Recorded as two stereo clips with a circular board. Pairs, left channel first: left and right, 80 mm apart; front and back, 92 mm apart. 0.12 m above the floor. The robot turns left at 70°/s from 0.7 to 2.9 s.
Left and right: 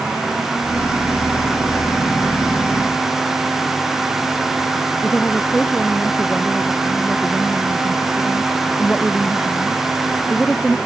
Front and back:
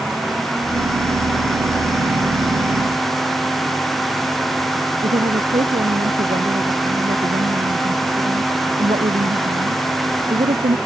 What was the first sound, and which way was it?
A woman speaking, 175° left.